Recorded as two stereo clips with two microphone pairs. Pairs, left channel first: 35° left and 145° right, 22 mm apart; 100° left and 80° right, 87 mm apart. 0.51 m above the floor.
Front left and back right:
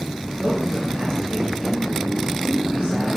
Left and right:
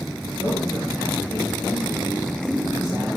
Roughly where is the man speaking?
Behind.